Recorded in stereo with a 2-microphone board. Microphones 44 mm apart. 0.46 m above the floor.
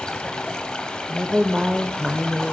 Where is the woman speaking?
15° right (ahead or behind), 1.6 m.